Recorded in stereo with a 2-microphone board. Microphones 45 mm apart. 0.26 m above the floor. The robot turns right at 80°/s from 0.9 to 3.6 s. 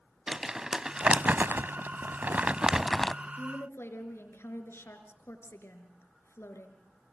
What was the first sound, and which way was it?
Crumpling, 15° right (ahead or behind).